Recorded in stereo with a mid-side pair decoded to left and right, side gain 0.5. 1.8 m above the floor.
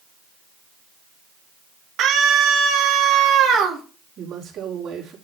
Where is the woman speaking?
55° right, 4.5 m.